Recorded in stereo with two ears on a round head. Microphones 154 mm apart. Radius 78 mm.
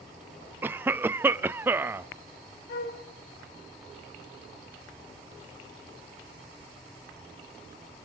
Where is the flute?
55° left (ahead or behind), 2 m.